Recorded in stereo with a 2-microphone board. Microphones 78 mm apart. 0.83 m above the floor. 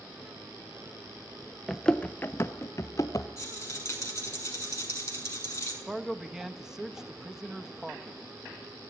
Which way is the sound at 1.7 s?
5° left (ahead or behind).